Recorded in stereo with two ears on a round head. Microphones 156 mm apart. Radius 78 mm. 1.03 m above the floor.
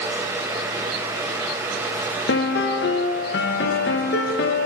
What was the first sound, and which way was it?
A piano, 65° left (ahead or behind).